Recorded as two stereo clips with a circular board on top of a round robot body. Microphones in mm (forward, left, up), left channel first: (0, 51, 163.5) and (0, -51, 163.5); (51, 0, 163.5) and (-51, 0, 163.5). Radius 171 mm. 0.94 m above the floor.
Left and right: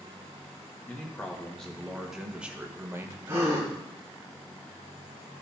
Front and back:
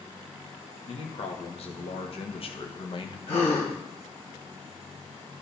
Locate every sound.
0.9 s a man speaking: 15° left, 2 m; by 3.2 s 30° right, 1.4 m
3.3 s a gasp: 25° right, 2 m